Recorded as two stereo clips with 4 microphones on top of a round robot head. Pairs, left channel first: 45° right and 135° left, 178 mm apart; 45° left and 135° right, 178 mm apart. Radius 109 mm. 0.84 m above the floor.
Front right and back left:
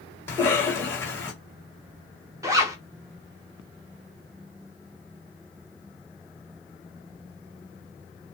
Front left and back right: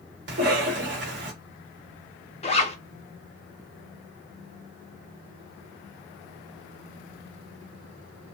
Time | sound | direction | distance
0.3 | a cough | 120° right | 1.6 m
2.4 | a zipper | 75° left | 0.8 m